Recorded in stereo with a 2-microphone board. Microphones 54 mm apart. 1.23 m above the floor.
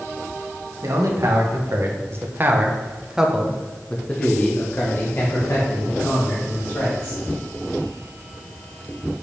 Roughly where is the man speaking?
Right.